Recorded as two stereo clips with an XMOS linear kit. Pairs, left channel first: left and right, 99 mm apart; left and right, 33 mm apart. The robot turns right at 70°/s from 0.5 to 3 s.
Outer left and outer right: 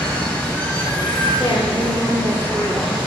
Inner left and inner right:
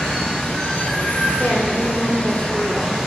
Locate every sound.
0.0 s running water: 20° left, 1.8 m; by 3.1 s 165° right, 1.8 m
1.4 s a woman speaking: 120° left, 1.5 m; by 3.0 s 130° right, 1.5 m